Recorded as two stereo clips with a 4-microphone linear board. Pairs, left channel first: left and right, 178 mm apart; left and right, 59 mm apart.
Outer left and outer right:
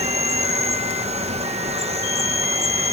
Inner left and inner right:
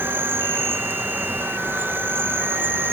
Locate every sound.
0.0 s an insect: 35° right (ahead or behind), 1.6 m